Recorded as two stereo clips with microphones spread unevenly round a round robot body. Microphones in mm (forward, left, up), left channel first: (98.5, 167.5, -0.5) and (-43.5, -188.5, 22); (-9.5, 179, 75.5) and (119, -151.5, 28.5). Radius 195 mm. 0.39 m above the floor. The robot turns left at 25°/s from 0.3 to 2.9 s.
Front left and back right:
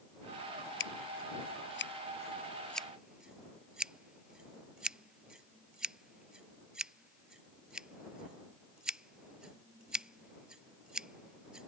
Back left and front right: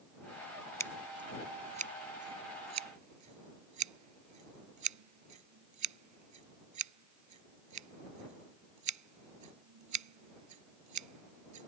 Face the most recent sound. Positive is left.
turn(degrees=-25)